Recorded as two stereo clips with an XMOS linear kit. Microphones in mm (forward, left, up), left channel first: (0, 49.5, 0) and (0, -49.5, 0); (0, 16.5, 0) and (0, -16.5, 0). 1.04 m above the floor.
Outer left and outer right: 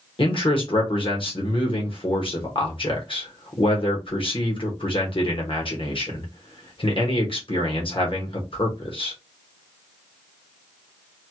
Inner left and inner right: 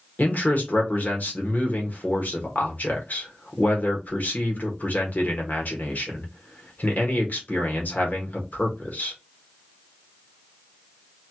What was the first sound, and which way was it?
A man speaking, 60° left (ahead or behind).